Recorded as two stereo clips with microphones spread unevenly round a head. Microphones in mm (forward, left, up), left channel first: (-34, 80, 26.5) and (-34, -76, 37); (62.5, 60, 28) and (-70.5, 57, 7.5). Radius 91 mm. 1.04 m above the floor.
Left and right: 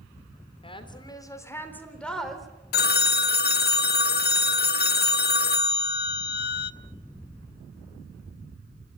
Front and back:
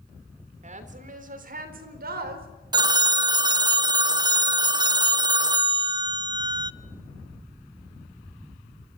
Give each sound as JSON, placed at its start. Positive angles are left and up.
{"t": 0.6, "sound": "a woman speaking", "azimuth_deg": 150, "distance_m": 3.5}
{"t": 2.7, "sound": "a phone ringing", "azimuth_deg": 120, "distance_m": 0.6}